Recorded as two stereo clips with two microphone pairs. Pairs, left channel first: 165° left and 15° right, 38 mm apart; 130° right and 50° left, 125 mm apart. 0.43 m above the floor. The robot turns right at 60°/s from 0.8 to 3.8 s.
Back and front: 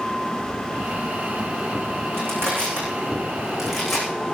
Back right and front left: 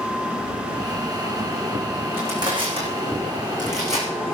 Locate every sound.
2.1 s crushing: 20° right, 8.5 m; by 4.1 s 80° left, 8.5 m